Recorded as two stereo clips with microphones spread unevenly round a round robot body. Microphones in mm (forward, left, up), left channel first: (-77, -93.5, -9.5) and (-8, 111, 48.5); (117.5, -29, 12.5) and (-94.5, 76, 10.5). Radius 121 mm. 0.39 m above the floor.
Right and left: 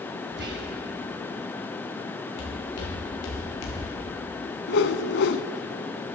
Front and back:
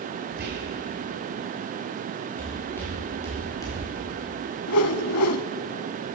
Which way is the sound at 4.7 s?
60° right.